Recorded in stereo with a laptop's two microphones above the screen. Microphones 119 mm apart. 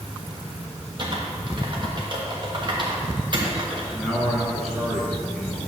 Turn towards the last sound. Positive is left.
turn(degrees=0)  # may be behind; listen again after turning